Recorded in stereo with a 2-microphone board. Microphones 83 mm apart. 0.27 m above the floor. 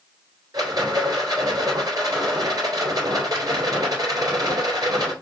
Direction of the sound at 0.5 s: 50° right (ahead or behind).